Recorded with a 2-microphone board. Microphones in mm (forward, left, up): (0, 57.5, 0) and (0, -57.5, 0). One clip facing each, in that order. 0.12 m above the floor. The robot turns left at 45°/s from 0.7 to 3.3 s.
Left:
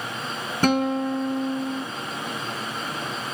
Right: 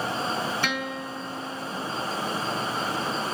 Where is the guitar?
120° left, 1.3 m; by 1.9 s 70° left, 1.3 m.